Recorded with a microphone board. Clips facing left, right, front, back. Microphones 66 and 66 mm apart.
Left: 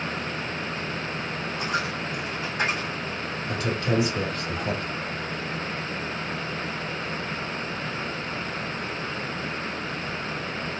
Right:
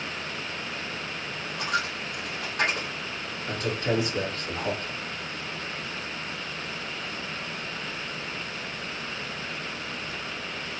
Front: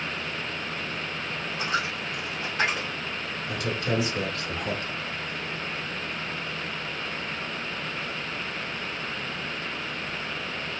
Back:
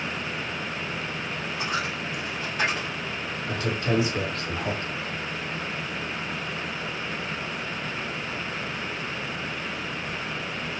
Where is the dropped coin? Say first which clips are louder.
Even, front 1 dB; 95° right, 2.5 m.